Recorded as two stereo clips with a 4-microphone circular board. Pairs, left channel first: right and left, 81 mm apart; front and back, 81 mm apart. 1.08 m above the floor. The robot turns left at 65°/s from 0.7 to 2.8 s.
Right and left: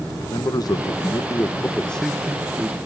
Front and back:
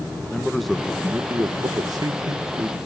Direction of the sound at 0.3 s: 90° right.